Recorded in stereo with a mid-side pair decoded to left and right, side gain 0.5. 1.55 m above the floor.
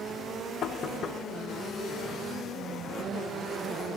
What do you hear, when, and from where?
0.6 s knocking: 50° left, 1.4 m